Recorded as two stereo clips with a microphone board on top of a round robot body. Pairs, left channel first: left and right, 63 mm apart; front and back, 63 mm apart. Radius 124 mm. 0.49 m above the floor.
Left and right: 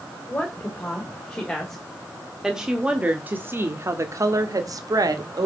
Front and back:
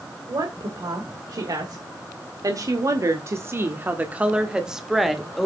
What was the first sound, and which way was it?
A woman speaking, 155° left.